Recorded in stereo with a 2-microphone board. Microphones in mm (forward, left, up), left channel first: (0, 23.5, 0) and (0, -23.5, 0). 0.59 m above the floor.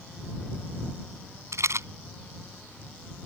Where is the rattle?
80° right.